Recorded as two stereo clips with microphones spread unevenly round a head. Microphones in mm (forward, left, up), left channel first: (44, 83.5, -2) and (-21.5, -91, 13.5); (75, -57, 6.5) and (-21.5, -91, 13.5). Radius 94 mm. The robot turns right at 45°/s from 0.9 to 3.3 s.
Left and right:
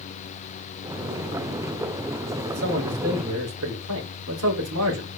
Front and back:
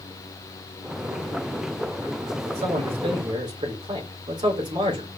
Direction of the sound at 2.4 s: 160° right.